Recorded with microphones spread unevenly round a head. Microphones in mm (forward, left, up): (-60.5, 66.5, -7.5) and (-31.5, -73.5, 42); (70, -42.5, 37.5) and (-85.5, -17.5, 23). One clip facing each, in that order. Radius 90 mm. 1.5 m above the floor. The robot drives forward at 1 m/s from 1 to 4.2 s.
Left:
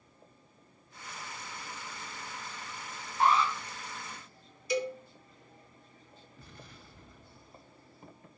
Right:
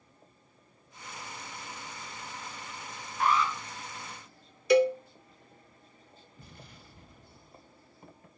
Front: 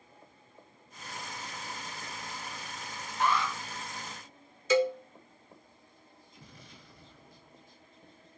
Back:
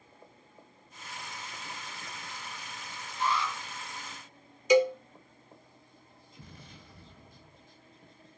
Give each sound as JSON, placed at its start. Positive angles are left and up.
{"t": 3.2, "sound": "an alarm", "azimuth_deg": 35, "distance_m": 1.9}
{"t": 4.7, "sound": "a cowbell", "azimuth_deg": -115, "distance_m": 0.7}
{"t": 6.4, "sound": "an explosion", "azimuth_deg": -145, "distance_m": 3.5}